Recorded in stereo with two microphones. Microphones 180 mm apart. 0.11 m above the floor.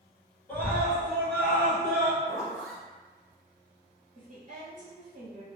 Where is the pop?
No pop in this recording.